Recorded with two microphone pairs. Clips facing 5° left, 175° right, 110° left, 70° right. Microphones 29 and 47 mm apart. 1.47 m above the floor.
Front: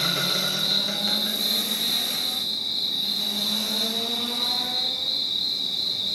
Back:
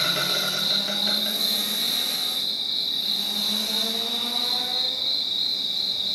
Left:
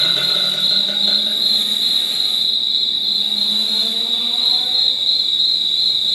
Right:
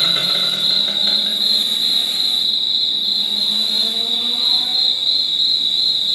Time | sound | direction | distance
0.0 | an insect | 105° right | 2.5 m